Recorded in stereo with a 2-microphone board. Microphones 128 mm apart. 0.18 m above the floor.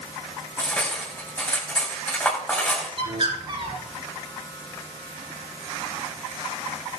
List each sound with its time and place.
0.6 s cutlery clinking: 10° left (ahead or behind), 8.5 m
3.0 s a bird: 45° right (ahead or behind), 3 m